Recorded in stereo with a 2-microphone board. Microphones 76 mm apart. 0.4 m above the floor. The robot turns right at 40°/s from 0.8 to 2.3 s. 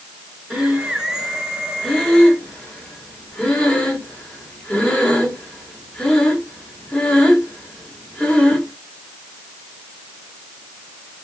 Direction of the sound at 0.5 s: 5° right (ahead or behind).